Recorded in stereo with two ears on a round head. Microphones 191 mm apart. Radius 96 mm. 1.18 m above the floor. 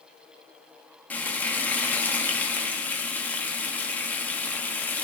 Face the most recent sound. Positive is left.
turn(degrees=10)  # may be behind; listen again after turning